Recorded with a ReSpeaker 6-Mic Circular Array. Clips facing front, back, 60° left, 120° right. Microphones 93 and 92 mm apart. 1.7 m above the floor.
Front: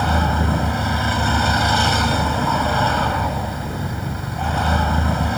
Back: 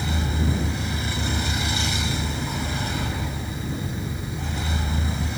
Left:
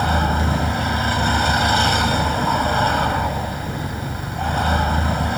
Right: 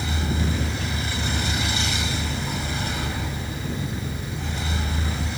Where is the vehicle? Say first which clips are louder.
Front 8 dB, left 8 dB; 25° left.